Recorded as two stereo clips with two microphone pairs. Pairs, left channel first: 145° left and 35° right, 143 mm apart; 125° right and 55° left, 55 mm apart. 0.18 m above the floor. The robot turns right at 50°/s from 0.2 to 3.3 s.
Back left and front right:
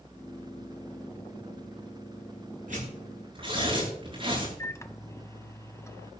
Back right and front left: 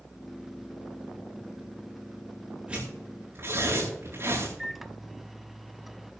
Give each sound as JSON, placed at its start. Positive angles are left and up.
{"t": 2.7, "sound": "tearing paper", "azimuth_deg": -15, "distance_m": 8.0}
{"t": 4.6, "sound": "a microwave", "azimuth_deg": 135, "distance_m": 0.9}